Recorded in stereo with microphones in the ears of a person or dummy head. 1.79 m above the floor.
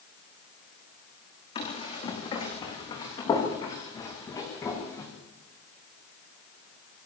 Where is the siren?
I don't hear a siren.